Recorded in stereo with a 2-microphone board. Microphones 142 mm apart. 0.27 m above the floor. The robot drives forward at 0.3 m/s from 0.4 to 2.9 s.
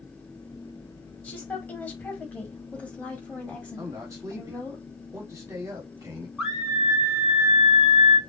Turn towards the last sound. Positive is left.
turn(degrees=-5)  # may be behind; listen again after turning